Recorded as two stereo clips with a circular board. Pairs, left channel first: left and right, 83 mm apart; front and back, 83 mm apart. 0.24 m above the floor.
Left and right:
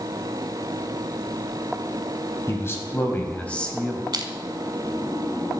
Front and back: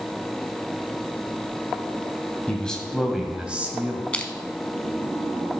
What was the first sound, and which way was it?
A man speaking, 70° left.